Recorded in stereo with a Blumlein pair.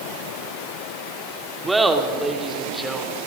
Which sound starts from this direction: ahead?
Laughter, at 1.6 s.